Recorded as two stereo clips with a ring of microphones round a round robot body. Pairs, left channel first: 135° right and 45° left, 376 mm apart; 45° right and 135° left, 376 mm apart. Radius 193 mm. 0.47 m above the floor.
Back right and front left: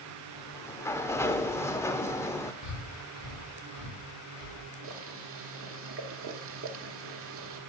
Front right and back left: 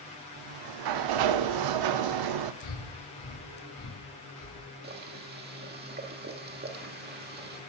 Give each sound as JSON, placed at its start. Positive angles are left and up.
{"t": 0.4, "sound": "a sliding door", "azimuth_deg": 145, "distance_m": 0.6}
{"t": 2.6, "sound": "breathing", "azimuth_deg": -85, "distance_m": 4.0}
{"t": 4.8, "sound": "boiling", "azimuth_deg": 80, "distance_m": 1.4}